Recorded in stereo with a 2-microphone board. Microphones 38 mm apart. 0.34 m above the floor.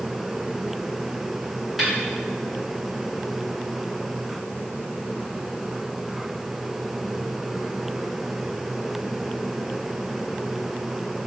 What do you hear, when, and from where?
1.8 s a snare drum: centre (ahead or behind), 3.5 m